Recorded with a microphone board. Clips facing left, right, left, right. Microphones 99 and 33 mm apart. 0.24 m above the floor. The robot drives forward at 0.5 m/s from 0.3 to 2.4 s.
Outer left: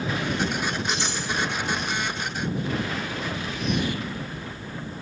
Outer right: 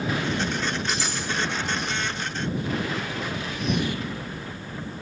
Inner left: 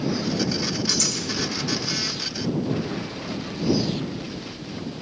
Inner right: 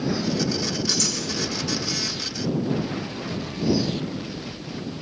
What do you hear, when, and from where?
0.9 s cutlery clinking: 5° right (ahead or behind), 7 m